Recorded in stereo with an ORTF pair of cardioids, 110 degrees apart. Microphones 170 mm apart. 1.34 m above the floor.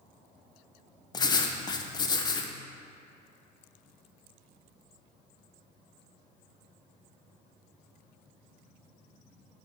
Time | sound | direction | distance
1.1 | writing | 25° left | 0.5 m